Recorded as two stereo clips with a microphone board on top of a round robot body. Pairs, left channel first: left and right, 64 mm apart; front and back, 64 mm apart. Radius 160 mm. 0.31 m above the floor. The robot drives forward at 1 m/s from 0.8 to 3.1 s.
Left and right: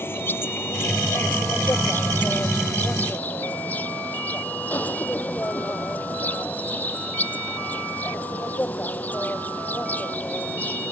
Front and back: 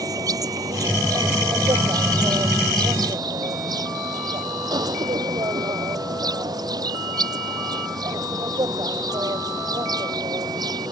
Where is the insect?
150° left; by 10.9 s 155° left.